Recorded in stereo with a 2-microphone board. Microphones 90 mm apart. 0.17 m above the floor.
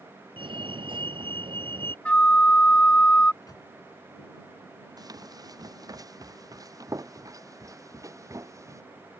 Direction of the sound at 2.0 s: 15° left (ahead or behind).